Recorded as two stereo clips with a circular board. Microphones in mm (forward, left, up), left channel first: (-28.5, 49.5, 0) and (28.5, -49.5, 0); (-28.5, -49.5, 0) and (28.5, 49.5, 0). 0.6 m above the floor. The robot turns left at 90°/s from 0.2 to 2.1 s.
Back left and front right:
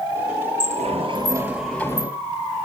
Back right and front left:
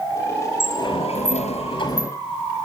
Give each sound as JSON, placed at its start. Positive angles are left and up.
{"t": 0.6, "sound": "a sliding door", "azimuth_deg": -55, "distance_m": 4.0}